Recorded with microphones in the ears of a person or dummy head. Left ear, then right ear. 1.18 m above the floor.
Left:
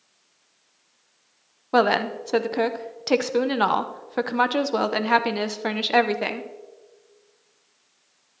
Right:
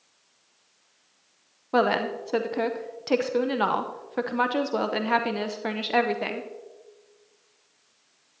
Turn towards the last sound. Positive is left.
turn(degrees=15)  # may be behind; listen again after turning